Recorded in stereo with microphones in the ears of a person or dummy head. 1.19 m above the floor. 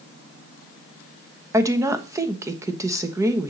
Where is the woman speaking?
15° right (ahead or behind), 1.1 m.